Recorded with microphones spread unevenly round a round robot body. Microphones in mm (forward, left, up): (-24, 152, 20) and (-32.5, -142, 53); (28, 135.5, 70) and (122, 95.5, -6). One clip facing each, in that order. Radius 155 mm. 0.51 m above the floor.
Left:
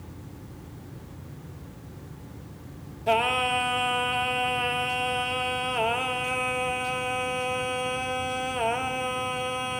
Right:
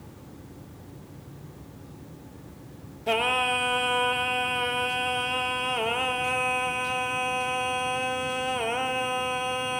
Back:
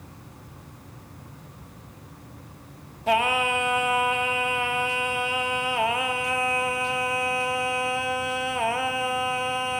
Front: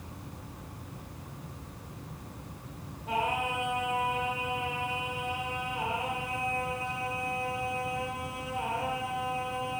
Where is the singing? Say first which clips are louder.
Left 1 dB, back 8 dB; 175° left, 0.6 m.